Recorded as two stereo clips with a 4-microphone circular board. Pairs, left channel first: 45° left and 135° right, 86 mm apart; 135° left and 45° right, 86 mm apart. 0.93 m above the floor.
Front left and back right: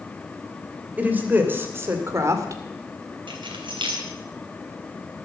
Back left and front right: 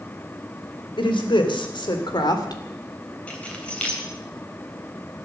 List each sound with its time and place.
1.0 s a woman speaking: 155° left, 3 m; by 2.6 s 175° left, 2 m
3.3 s keys jangling: 150° right, 3.5 m